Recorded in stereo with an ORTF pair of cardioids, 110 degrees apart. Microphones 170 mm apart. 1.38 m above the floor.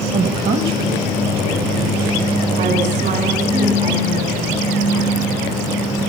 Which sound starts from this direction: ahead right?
A woman speaking, at 0.1 s.